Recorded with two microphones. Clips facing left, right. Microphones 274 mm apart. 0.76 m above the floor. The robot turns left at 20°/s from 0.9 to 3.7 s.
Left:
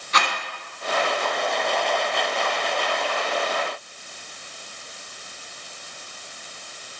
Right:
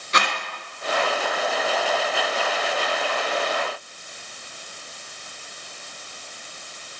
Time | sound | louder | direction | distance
0.1 | a rattle | right 1 dB | 30° right (ahead or behind) | 1.6 m